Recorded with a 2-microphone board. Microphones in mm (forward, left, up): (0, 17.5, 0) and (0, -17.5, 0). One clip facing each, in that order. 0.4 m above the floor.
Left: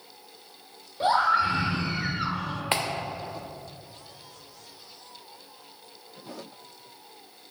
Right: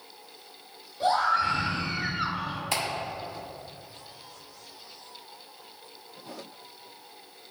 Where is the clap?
40° left (ahead or behind), 0.8 m.